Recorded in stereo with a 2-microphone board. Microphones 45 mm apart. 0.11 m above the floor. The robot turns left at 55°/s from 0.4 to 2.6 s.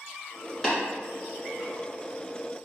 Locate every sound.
0.6 s tapping: 10° left (ahead or behind), 1.8 m